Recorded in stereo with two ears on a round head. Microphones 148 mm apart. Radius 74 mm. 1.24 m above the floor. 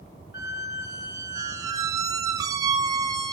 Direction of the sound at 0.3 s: 20° right (ahead or behind).